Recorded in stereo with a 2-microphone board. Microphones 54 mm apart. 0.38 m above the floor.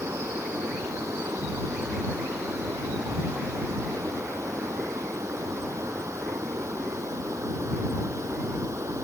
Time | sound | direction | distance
0.0 | running water | 60° right (ahead or behind) | ?